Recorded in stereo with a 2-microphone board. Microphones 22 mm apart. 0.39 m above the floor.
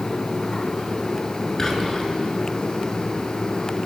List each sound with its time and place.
1.6 s whispering: 20° left (ahead or behind), 5.5 m